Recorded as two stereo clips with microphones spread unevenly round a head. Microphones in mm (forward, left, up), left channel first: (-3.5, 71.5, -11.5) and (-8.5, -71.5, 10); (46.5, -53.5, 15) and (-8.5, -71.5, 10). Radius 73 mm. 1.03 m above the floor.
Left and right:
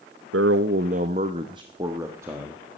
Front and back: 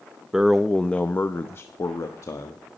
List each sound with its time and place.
0.3 s a man speaking: 85° right, 0.7 m; by 2.6 s 15° right, 1.7 m